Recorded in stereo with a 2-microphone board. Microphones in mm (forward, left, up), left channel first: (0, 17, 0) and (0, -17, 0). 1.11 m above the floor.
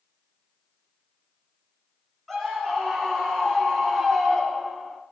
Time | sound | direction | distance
2.3 | a scream | 5° left (ahead or behind) | 8 m